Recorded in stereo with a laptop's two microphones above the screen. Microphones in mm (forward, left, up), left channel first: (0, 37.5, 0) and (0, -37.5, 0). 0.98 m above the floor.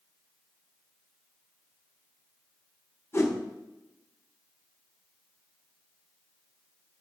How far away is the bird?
I don't hear a bird.